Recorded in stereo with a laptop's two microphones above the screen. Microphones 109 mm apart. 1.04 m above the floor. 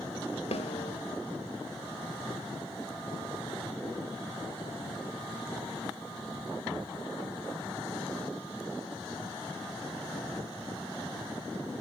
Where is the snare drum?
75° left (ahead or behind), 2 m.